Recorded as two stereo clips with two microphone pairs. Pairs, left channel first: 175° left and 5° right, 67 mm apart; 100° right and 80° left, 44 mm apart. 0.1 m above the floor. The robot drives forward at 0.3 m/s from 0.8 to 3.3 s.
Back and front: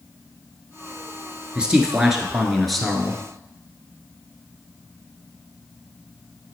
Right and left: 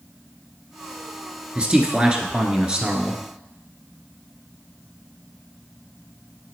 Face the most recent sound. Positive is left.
turn(degrees=110)